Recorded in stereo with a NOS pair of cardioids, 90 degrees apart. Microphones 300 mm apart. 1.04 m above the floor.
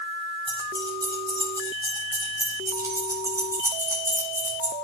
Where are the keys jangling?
15° right, 6.5 m; by 4.7 s 5° right, 4 m.